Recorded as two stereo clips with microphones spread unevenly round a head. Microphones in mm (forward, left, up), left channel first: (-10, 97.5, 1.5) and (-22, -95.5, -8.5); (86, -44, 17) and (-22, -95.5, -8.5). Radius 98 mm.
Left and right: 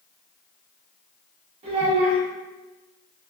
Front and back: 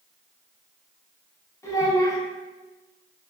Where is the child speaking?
35° right, 1.1 m.